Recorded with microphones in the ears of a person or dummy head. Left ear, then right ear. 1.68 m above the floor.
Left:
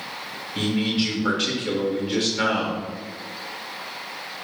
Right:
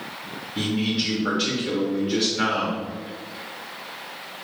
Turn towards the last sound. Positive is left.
turn(degrees=20)  # may be behind; listen again after turning